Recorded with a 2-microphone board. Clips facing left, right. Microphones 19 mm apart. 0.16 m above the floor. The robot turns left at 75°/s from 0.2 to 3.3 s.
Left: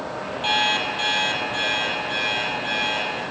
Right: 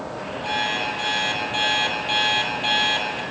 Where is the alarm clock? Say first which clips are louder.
Left 3 dB; 60° left, 2.5 m; by 3.2 s 145° right, 2.5 m.